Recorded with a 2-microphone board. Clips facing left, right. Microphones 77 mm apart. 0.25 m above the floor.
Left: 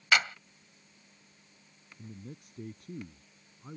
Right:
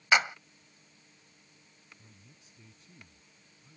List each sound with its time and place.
0.1 s a clap: 20° right (ahead or behind)
2.0 s a man speaking: 55° left (ahead or behind)